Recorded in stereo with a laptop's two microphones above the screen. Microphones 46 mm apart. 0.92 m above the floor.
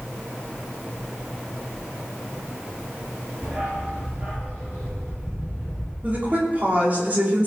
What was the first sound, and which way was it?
A dog barking, 25° right (ahead or behind).